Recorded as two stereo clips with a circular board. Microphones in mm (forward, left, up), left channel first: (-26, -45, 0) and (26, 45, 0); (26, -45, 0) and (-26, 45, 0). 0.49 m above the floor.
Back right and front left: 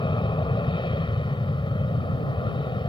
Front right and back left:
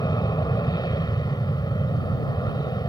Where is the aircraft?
100° right.